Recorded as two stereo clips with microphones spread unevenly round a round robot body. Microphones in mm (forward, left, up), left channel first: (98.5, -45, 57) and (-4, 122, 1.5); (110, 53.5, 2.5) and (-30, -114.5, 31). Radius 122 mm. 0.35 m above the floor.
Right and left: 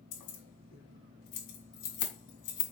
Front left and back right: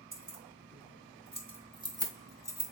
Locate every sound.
0.1 s keys jangling: 75° right, 3 m; by 2.7 s 45° right, 3 m